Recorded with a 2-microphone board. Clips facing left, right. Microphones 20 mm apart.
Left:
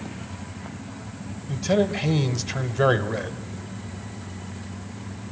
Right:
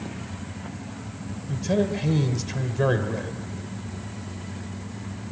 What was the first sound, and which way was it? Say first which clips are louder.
A man speaking: left 2 dB; 20° left (ahead or behind).